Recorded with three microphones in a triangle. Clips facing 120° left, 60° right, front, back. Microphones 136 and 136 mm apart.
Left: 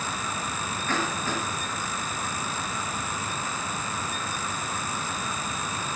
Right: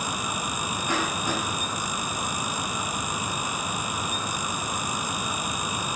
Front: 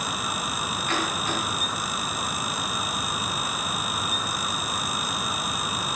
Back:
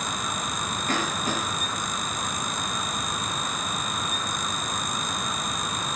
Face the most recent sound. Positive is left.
turn(degrees=-135)